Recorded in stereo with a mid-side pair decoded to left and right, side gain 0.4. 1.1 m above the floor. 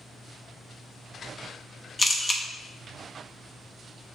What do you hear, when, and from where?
2.0 s a camera shutter: 15° left, 0.8 m